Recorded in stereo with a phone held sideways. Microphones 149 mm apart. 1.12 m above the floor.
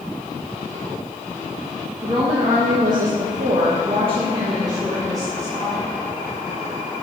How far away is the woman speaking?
About 1.4 m.